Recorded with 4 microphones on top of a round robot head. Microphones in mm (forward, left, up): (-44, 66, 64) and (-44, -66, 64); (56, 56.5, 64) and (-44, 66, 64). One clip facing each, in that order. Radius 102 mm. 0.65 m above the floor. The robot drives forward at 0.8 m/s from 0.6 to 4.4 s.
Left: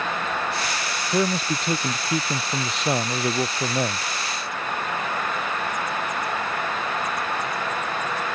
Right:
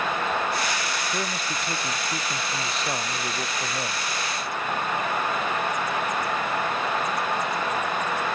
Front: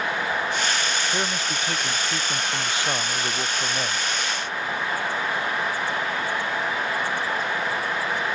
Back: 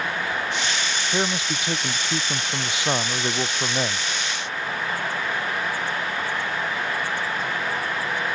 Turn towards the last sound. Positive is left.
turn(degrees=105)